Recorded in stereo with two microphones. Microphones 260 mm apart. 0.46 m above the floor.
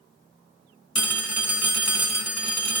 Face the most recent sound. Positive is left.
turn(degrees=-65)  # may be behind; listen again after turning